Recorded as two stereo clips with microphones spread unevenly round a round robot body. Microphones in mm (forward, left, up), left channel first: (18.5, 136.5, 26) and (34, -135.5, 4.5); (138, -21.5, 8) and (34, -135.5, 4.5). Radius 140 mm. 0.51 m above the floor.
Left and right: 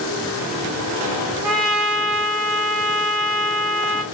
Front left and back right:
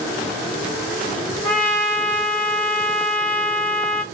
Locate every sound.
1.4 s a trumpet: 145° left, 2 m